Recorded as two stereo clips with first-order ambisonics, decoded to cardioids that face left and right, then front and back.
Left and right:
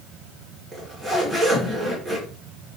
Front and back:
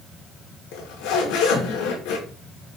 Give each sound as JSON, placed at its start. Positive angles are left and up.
{"t": 0.7, "sound": "a zipper", "azimuth_deg": 0, "distance_m": 5.0}